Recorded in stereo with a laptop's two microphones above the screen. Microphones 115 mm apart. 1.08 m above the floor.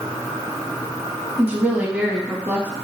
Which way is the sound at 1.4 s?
15° right (ahead or behind).